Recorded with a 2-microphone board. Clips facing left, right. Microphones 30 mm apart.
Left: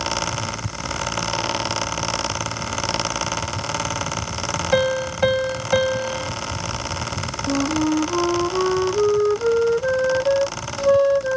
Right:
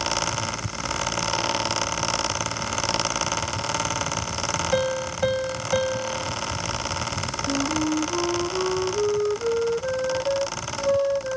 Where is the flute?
45° left (ahead or behind).